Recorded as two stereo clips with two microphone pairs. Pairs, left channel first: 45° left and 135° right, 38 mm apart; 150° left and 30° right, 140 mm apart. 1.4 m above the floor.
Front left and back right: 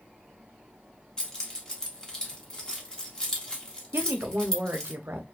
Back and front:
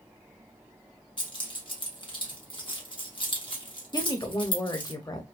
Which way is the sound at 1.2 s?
105° left.